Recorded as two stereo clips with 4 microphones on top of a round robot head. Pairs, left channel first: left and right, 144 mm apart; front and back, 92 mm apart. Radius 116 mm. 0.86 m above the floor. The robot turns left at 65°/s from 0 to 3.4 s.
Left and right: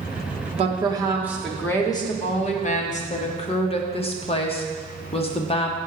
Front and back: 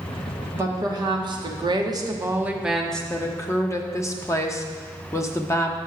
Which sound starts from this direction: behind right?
A woman speaking, at 0.6 s.